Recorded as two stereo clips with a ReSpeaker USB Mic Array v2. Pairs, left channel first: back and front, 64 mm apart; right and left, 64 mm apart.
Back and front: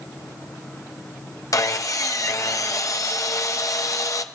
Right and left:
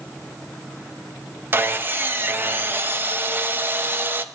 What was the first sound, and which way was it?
Sawing, 145° left.